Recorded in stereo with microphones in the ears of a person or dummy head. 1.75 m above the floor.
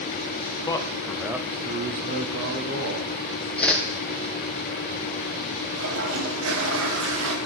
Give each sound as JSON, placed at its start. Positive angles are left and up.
{"t": 0.7, "sound": "a man speaking", "side_deg": 20, "distance_m": 0.9}
{"t": 3.6, "sound": "a whoosh", "side_deg": 5, "distance_m": 0.8}
{"t": 5.7, "sound": "a toilet flushing", "side_deg": -80, "distance_m": 1.4}